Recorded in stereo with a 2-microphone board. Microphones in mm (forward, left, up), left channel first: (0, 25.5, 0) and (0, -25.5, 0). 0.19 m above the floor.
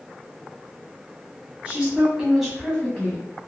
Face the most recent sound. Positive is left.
turn(degrees=25)  # may be behind; listen again after turning